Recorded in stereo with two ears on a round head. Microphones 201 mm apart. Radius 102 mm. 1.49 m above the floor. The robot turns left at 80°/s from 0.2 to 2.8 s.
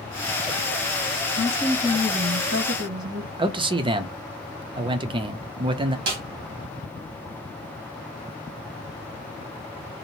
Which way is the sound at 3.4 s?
25° right (ahead or behind).